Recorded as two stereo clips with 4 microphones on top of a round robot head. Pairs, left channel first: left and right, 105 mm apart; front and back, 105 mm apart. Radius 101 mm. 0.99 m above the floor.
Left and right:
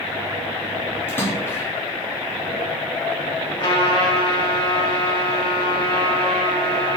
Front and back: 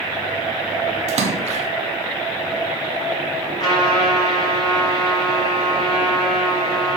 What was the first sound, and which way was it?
A splash, 160° left.